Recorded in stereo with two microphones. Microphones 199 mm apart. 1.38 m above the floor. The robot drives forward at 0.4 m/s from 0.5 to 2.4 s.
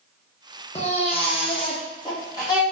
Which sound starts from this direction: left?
A baby crying, at 0.8 s.